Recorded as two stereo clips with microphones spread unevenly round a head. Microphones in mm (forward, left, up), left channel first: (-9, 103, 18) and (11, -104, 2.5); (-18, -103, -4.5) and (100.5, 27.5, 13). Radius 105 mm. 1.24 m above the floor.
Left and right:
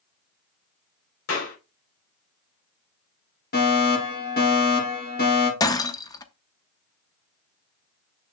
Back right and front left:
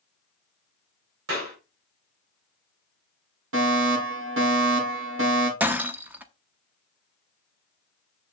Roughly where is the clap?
Ahead left.